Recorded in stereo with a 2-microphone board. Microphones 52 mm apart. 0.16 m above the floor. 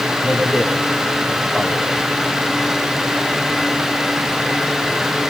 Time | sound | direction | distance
0.2 | a man speaking | 25° right (ahead or behind) | 5.5 m